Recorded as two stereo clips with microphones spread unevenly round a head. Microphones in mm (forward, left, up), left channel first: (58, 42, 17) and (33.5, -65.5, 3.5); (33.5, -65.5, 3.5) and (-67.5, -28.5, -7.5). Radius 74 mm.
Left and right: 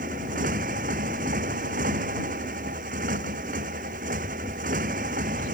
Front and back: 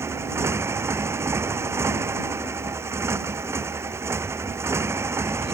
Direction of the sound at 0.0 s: 135° right.